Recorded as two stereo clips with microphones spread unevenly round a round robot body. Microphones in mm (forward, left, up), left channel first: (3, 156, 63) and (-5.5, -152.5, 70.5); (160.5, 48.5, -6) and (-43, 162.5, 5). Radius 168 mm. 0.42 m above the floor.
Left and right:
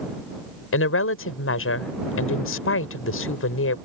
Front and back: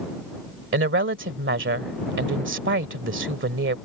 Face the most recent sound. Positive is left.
turn(degrees=130)